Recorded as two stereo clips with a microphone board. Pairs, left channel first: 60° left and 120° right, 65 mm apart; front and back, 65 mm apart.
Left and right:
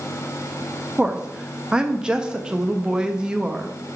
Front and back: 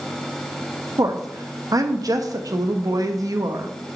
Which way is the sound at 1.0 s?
165° left.